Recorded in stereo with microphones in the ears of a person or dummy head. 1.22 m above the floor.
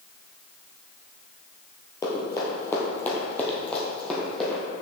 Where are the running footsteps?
15° left (ahead or behind), 1.7 m; by 4.6 s 5° left (ahead or behind), 3 m.